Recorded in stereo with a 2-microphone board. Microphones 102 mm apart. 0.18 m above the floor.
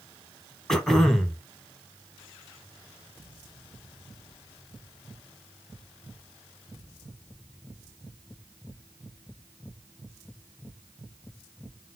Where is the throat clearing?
5° left (ahead or behind), 0.9 m.